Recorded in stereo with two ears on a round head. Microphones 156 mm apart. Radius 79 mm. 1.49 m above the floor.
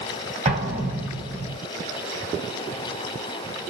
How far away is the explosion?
About 1.6 m.